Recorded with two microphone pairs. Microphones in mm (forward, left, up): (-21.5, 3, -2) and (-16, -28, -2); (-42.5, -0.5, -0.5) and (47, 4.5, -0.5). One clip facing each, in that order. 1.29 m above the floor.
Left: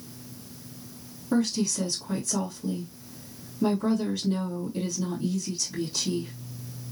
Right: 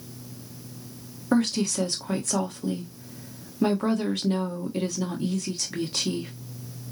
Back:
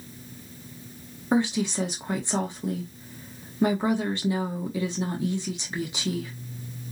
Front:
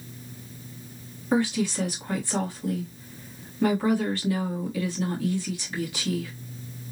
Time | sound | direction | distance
1.3 | a woman speaking | 105° right | 1.0 m